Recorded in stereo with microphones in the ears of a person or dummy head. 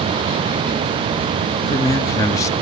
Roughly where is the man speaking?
Left.